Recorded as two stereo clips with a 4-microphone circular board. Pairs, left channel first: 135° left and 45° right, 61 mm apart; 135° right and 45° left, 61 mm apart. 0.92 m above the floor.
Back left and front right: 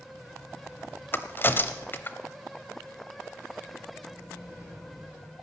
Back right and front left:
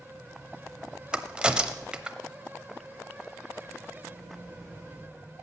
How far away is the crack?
About 0.8 m.